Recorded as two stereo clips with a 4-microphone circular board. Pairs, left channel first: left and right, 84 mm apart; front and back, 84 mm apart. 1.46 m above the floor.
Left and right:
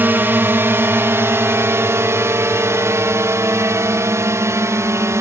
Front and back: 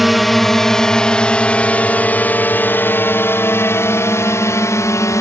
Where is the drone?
90° right; by 5.2 s 40° right.